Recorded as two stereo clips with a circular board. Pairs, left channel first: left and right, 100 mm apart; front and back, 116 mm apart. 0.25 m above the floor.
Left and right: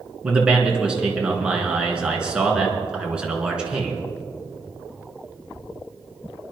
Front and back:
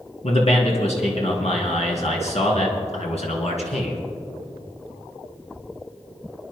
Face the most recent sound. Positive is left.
turn(degrees=-10)